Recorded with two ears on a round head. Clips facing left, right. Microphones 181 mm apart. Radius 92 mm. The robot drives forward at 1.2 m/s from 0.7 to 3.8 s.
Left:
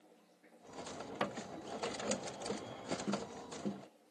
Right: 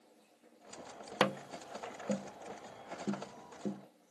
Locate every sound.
1.2 s tapping: 75° right (ahead or behind); by 3.9 s 10° right (ahead or behind)